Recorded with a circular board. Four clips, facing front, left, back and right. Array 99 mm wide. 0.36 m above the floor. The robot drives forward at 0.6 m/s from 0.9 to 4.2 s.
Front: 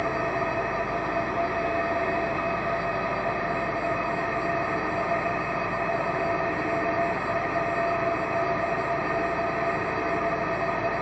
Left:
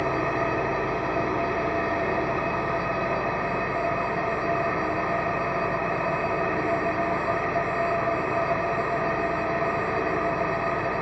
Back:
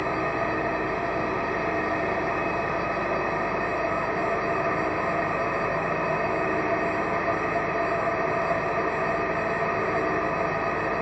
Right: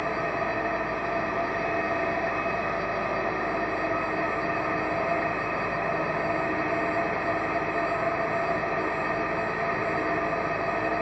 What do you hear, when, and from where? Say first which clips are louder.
0.0 s an engine running: left 3 dB, even; 115° left, 2.5 m; by 11.0 s 140° left, 4 m